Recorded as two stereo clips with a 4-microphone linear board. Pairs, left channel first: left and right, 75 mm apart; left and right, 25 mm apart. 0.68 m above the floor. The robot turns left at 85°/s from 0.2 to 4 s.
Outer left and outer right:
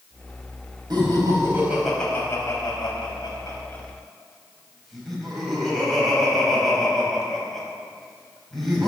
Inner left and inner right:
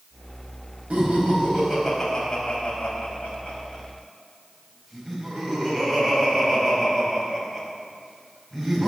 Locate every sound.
0.9 s laughter: 75° right (ahead or behind), 5 m; by 8.9 s centre (ahead or behind), 5 m